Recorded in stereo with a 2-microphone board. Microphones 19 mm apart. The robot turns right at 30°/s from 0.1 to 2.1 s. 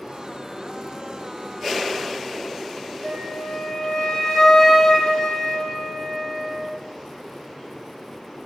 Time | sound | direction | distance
3.0 | a flute | 55° left (ahead or behind) | 0.9 m